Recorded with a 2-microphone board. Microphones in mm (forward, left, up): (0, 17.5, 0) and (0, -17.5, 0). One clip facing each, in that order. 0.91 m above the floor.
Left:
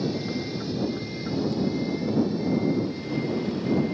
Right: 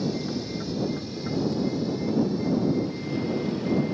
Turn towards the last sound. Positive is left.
turn(degrees=10)  # may be behind; listen again after turning